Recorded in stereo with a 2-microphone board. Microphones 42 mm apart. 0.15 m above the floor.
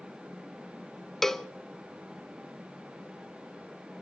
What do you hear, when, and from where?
1.2 s a cowbell: 10° left (ahead or behind), 0.5 m